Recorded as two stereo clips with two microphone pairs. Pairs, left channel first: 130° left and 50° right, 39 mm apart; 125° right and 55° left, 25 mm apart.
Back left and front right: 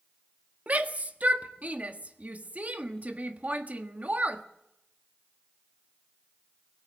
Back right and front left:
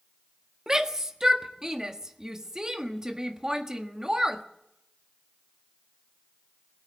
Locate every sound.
0.7 s a shout: 10° right, 1.3 m